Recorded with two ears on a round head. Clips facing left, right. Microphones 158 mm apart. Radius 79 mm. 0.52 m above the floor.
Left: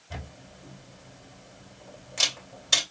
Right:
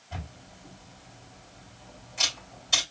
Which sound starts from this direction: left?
A camera shutter, at 0.1 s.